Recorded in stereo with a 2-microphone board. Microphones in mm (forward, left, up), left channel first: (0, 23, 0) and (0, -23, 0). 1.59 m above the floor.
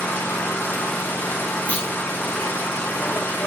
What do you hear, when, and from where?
0.0 s an engine running: 70° left (ahead or behind), 3.5 m
1.7 s a clunk: 40° left (ahead or behind), 2.5 m